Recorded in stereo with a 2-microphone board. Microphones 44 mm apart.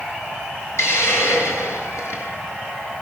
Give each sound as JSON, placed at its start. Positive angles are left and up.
{"t": 0.8, "sound": "a hiss", "side_deg": 70, "distance_m": 7.5}